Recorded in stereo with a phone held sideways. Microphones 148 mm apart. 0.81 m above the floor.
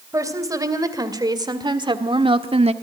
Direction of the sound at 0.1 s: 20° right (ahead or behind).